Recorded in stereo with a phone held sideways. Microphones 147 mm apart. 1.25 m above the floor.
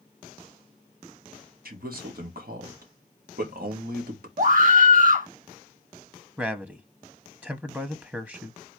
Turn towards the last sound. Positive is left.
turn(degrees=-10)  # may be behind; listen again after turning